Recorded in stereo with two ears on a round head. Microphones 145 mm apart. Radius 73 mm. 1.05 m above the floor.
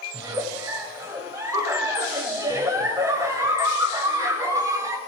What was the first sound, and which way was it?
A giggle, 20° right (ahead or behind).